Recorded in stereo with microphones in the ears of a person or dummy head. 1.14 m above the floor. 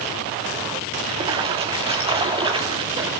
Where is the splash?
25° right (ahead or behind), 2.5 m.